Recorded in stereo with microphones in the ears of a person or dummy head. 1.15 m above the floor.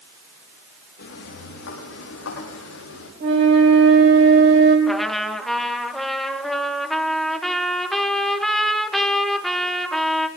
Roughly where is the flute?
Right.